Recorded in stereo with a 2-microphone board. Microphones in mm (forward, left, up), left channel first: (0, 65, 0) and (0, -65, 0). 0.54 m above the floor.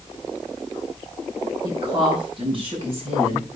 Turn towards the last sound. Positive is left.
turn(degrees=-55)  # may be behind; listen again after turning